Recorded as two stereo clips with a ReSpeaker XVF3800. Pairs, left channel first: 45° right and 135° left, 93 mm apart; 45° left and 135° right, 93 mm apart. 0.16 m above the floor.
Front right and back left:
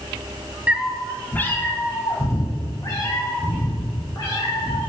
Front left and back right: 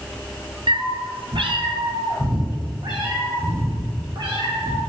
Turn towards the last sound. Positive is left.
turn(degrees=-90)